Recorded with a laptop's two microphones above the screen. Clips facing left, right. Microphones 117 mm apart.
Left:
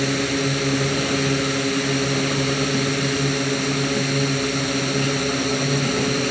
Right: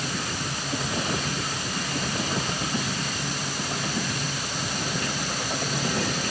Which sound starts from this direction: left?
A drone, at 0.0 s.